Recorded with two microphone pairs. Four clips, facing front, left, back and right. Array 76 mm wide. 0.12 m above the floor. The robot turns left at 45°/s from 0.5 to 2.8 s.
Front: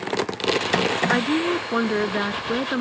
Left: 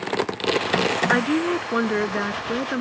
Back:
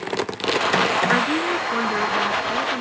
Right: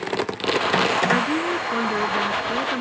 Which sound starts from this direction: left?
A woman speaking, at 1.1 s.